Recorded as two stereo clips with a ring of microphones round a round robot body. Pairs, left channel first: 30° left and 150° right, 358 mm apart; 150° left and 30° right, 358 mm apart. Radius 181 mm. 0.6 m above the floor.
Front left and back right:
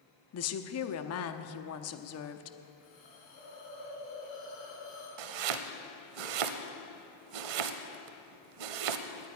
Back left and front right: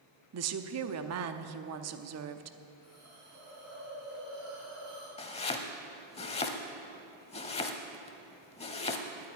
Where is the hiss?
20° left, 5 m.